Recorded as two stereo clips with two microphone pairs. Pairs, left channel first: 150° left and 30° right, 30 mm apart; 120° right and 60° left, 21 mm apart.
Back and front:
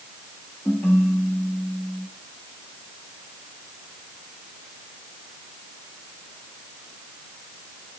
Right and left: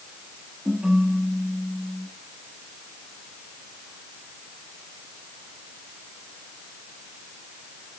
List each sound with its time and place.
0.7 s a ringtone: 125° left, 4.5 m